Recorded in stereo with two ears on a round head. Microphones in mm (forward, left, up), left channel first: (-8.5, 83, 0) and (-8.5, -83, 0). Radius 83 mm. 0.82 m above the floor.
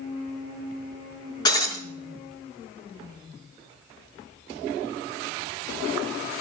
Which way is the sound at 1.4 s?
20° left (ahead or behind).